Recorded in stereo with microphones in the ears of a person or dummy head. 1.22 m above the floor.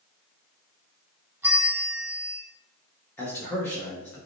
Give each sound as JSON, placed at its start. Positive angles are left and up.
{"t": 1.4, "sound": "a bell", "side_deg": -10, "distance_m": 0.8}
{"t": 3.2, "sound": "a man speaking", "side_deg": 15, "distance_m": 0.7}